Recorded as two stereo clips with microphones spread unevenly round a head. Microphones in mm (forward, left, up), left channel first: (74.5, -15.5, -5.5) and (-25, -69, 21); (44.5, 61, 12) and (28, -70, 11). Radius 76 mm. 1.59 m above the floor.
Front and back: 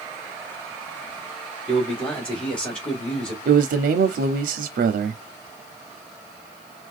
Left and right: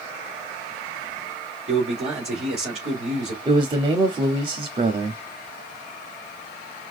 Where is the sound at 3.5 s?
160° right, 0.7 m.